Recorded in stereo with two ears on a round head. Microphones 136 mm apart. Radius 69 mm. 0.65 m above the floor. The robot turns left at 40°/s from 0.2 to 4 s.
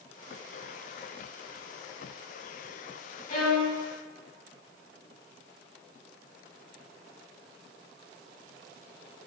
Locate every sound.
3.3 s a violin: 45° left (ahead or behind), 0.7 m; by 3.8 s 35° left (ahead or behind), 0.7 m